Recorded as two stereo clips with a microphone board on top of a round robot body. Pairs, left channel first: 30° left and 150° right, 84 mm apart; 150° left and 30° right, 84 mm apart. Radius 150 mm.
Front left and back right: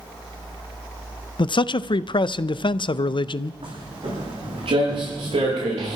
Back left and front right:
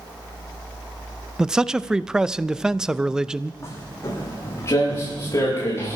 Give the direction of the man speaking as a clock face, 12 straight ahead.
10 o'clock.